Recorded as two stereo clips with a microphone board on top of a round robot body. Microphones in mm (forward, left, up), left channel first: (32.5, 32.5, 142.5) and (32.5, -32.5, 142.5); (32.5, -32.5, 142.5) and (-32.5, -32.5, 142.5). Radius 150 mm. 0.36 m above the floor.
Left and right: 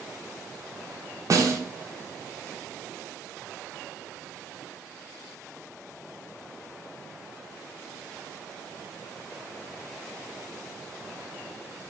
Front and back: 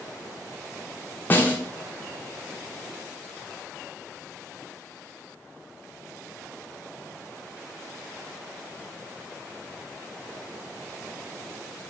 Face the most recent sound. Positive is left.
turn(degrees=-60)